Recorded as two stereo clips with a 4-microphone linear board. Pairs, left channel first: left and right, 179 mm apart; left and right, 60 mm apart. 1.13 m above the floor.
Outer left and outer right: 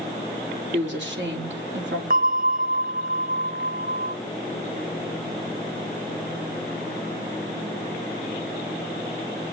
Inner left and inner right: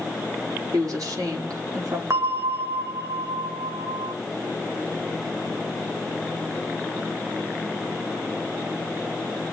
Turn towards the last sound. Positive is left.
turn(degrees=-45)  # may be behind; listen again after turning